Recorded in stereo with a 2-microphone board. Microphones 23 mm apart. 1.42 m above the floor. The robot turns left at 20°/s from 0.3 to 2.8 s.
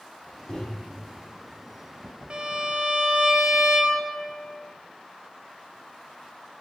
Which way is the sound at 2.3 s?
45° right (ahead or behind).